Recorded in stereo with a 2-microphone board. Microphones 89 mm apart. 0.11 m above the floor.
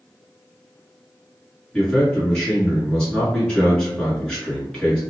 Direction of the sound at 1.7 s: 10° left (ahead or behind).